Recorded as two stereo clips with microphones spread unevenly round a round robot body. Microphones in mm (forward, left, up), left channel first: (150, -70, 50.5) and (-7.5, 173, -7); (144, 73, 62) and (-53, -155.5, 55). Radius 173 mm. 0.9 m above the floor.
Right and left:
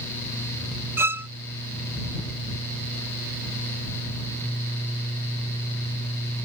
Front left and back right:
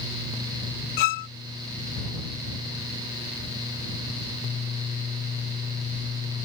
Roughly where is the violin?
Ahead left.